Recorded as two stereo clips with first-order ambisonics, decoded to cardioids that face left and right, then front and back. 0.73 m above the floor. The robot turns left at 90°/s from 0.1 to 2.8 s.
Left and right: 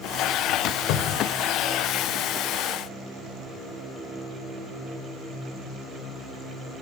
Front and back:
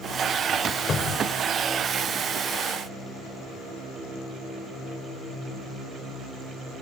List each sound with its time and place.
0.9 s a cupboard door: 65° left, 2 m; by 1.3 s 30° left, 2 m